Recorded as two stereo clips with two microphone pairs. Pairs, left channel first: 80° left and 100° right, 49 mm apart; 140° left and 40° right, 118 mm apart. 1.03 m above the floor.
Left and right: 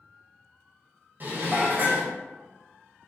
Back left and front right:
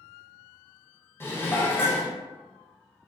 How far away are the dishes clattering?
About 0.6 m.